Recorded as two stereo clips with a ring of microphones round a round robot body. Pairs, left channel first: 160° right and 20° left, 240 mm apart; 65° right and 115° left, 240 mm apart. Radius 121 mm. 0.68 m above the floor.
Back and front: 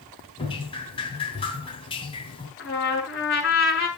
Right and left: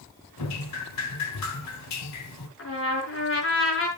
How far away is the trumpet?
About 6.5 m.